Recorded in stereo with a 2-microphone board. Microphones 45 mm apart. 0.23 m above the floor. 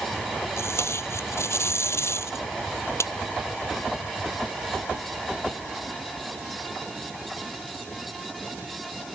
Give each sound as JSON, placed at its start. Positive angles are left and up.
{"t": 0.6, "sound": "tape being pulled", "side_deg": 75}